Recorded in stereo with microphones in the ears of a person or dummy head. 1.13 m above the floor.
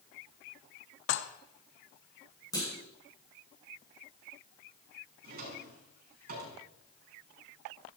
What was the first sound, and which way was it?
Dishes clattering, 70° left (ahead or behind).